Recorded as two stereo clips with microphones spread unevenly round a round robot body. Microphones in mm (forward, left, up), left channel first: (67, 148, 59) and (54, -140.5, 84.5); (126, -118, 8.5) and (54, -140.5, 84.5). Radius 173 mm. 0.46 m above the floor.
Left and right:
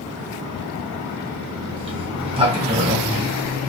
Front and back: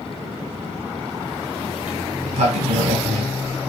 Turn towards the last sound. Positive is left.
turn(degrees=-165)